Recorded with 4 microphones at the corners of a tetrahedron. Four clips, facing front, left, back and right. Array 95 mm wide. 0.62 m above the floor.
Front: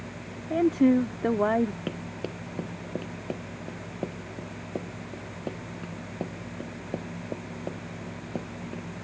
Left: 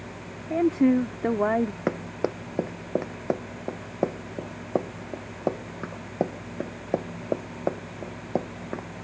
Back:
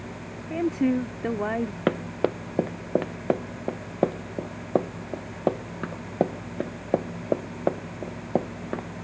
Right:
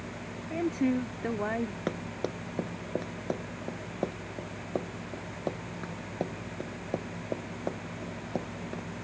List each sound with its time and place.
0.5 s a woman speaking: 60° left
1.9 s running footsteps: 160° left; by 8.9 s 155° left